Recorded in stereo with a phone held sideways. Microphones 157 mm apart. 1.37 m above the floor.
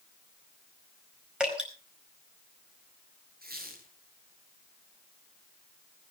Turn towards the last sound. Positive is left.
turn(degrees=-75)  # may be behind; listen again after turning